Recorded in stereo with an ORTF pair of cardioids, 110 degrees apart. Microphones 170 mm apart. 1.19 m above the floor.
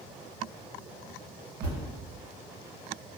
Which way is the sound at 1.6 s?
65° right.